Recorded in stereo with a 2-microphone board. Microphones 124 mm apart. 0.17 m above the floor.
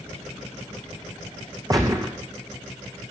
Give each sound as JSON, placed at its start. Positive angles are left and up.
{"t": 1.7, "sound": "a gunshot", "side_deg": -25, "distance_m": 1.9}